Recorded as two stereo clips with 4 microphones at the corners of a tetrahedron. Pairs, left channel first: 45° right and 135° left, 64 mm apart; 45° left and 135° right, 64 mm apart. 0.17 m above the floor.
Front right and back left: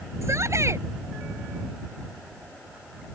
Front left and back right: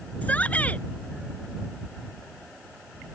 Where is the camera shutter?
No camera shutter in this recording.